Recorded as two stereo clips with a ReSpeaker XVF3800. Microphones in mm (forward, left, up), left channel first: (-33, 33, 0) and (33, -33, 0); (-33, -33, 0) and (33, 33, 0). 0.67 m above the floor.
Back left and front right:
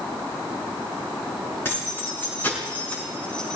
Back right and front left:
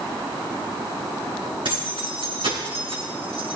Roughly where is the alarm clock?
No alarm clock in this recording.